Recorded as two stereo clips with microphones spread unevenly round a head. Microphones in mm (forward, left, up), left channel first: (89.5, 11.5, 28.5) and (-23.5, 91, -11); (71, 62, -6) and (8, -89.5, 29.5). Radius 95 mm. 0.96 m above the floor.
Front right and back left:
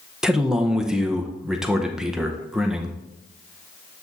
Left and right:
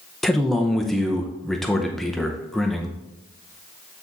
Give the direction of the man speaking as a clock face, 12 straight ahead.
8 o'clock.